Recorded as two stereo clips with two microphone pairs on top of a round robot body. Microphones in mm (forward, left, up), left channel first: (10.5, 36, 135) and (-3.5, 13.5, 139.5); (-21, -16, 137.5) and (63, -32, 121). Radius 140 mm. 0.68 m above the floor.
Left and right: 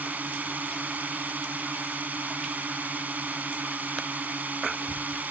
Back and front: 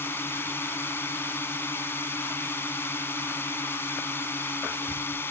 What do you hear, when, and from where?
0.0 s a drone: 125° right